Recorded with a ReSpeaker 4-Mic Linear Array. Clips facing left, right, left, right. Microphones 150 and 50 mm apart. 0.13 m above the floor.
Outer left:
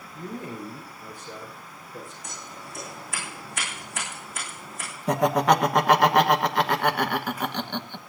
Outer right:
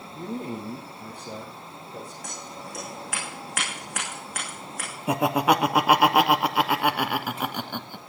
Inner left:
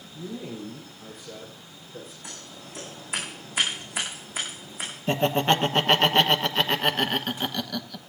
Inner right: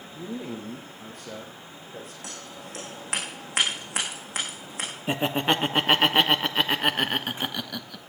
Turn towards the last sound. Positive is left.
turn(degrees=-10)  # may be behind; listen again after turning